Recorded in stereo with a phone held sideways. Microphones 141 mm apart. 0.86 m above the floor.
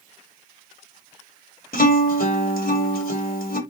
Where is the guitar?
75° left (ahead or behind), 1.5 m.